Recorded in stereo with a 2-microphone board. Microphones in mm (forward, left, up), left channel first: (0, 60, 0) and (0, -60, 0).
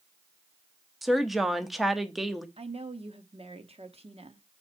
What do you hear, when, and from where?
1.0 s a woman speaking: centre (ahead or behind), 0.8 m
2.6 s a woman speaking: 55° right (ahead or behind), 0.9 m